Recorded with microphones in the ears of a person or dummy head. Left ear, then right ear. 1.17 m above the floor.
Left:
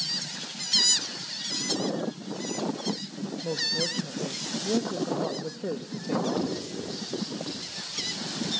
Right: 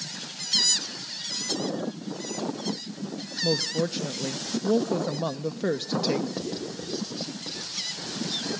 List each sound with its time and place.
3.4 s a woman speaking: 55° right (ahead or behind), 0.5 m
6.4 s writing: centre (ahead or behind), 4 m